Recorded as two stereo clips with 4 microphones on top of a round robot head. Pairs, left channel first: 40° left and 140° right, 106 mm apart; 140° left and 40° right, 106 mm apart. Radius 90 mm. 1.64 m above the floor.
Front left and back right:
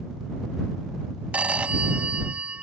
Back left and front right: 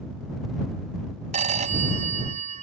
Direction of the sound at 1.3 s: 60° right.